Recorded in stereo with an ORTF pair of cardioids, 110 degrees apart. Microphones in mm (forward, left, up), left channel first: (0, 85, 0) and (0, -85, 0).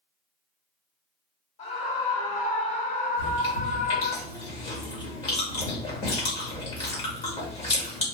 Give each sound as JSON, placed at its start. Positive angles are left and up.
{"t": 1.6, "sound": "a scream", "azimuth_deg": 40, "distance_m": 2.0}
{"t": 3.2, "sound": "chewing", "azimuth_deg": 35, "distance_m": 1.9}